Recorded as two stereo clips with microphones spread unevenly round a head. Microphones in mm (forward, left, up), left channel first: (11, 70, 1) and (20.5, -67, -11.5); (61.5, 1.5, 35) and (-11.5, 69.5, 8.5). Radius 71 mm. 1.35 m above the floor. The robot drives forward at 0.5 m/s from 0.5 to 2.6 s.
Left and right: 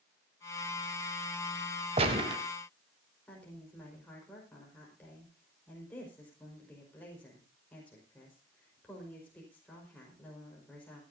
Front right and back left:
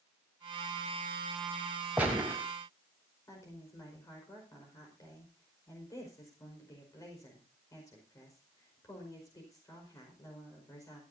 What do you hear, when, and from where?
2.0 s a gunshot: 135° right, 1.9 m; by 2.4 s 140° right, 2 m
3.3 s a woman speaking: 15° left, 5 m